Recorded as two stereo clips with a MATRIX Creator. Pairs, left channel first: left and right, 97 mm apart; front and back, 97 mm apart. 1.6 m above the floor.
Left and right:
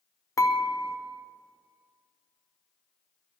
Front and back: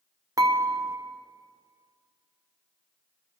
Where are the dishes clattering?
140° left, 1.0 m.